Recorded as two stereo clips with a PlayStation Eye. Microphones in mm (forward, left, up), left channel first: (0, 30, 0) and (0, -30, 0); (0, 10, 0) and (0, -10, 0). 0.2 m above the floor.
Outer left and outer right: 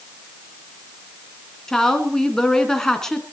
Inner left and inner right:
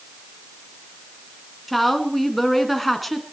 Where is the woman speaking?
5° left (ahead or behind), 2.5 m.